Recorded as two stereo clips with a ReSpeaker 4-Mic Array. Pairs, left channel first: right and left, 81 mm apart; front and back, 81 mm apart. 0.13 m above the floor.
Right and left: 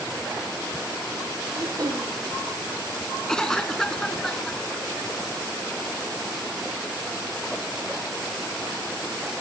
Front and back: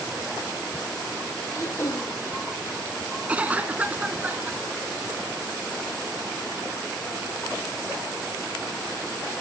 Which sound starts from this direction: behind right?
A cough, at 3.3 s.